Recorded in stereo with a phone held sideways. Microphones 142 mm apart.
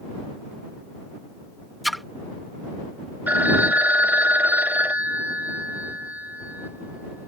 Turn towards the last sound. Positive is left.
turn(degrees=-10)  # may be behind; listen again after turning